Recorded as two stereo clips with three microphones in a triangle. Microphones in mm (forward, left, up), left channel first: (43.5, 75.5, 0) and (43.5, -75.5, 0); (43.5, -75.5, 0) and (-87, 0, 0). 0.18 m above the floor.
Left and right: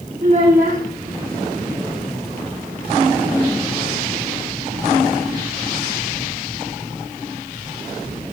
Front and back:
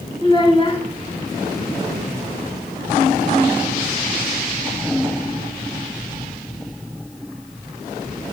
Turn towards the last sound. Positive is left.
turn(degrees=-80)